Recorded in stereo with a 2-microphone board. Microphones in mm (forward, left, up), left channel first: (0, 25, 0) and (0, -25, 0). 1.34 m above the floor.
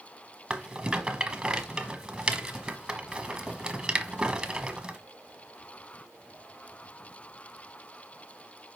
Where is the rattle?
15° right (ahead or behind), 1.1 m.